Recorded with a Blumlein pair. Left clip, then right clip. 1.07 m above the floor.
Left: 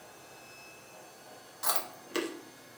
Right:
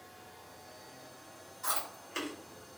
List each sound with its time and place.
1.6 s chewing: 50° left, 0.9 m